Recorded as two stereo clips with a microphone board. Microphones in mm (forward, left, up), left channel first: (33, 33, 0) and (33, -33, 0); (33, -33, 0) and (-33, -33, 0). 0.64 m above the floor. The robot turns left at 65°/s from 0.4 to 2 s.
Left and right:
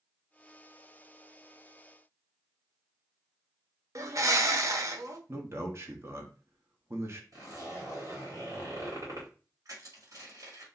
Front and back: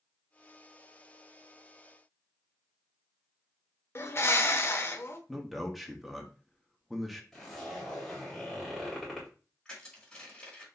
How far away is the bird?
About 0.6 m.